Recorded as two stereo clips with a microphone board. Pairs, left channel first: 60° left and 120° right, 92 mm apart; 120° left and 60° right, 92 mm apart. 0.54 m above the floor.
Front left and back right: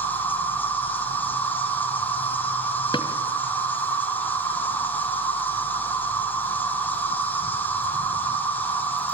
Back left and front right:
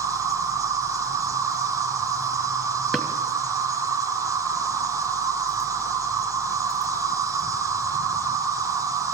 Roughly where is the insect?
Ahead.